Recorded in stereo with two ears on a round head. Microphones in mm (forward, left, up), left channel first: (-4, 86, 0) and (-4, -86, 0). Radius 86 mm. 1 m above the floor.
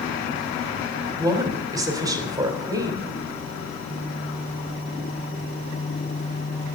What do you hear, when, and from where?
1.2 s a woman speaking: 20° right (ahead or behind), 3 m